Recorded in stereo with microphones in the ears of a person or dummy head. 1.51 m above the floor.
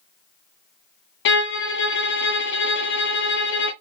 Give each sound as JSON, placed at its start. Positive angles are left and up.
{"t": 1.2, "sound": "a violin", "side_deg": 60, "distance_m": 0.6}